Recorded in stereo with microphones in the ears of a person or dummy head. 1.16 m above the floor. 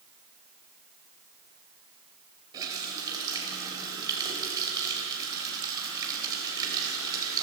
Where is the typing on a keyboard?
No typing on a keyboard in this recording.